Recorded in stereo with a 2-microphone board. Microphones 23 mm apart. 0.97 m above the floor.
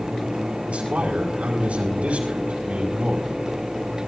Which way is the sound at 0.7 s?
75° right (ahead or behind).